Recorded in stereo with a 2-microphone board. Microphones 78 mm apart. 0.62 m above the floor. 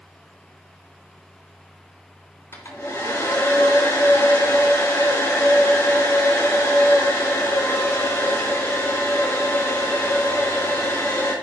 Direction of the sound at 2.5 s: 40° left (ahead or behind).